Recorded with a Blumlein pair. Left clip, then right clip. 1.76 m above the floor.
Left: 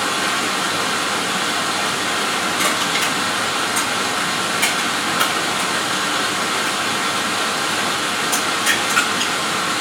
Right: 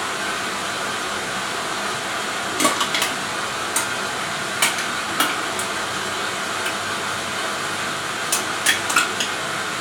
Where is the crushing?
20° right, 2 m.